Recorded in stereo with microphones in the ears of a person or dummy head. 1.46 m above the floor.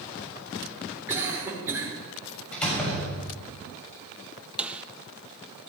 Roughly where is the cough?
Centre.